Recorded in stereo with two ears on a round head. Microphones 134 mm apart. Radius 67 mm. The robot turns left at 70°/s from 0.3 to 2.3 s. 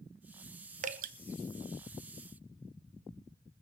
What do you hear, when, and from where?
0.8 s dripping: 50° right (ahead or behind), 1.0 m; by 1.1 s 65° right (ahead or behind), 1.0 m